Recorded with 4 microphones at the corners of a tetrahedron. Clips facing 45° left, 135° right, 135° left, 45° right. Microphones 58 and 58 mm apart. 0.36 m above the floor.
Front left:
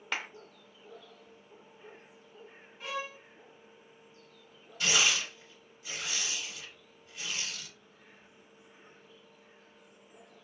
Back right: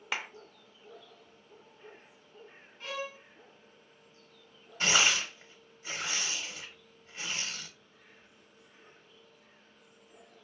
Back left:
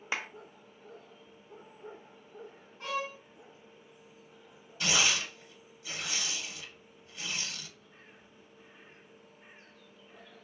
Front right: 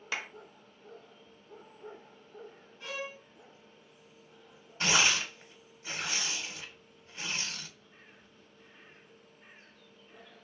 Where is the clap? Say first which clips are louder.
Even, back left 1 dB; 140° left, 0.7 m.